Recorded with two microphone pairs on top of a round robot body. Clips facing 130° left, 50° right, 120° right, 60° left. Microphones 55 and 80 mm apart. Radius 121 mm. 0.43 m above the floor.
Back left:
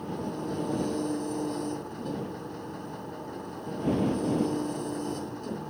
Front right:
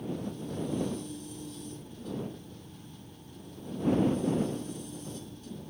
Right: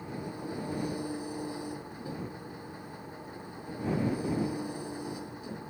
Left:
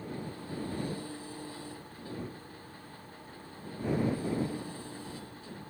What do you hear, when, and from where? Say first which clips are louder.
0.0 s an engine running: back left 3 dB, right 2 dB; 165° left